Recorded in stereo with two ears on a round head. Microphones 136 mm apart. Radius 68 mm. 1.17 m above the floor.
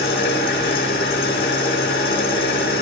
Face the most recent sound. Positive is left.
turn(degrees=70)  # may be behind; listen again after turning